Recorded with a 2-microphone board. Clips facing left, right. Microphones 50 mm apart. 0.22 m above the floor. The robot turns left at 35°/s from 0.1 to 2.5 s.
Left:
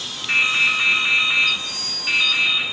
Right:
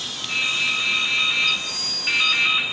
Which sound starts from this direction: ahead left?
Dripping, at 0.3 s.